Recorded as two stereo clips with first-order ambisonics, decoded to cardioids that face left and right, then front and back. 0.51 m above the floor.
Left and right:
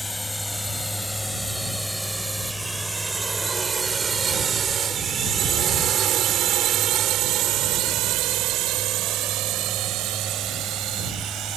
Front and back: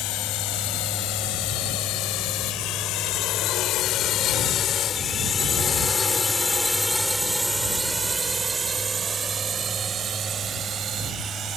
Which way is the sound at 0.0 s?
5° left.